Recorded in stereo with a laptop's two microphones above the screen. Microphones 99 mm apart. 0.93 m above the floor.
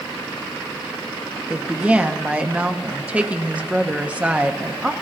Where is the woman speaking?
10° right (ahead or behind), 1.1 m.